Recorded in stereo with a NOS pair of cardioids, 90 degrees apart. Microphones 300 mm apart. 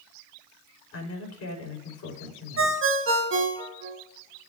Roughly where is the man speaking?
Ahead left.